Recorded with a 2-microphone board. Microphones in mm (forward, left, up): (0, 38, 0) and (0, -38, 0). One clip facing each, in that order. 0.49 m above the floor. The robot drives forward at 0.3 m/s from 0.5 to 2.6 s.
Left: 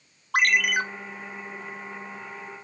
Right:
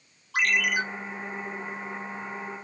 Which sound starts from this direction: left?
A ringtone, at 0.3 s.